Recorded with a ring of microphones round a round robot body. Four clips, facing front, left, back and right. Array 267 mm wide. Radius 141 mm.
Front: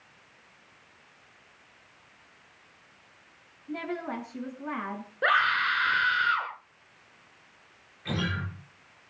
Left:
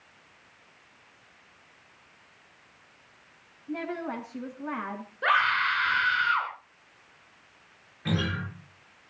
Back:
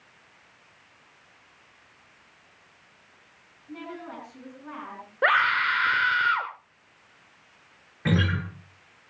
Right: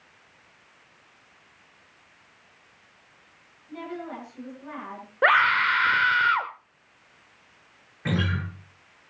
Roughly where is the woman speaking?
Ahead left.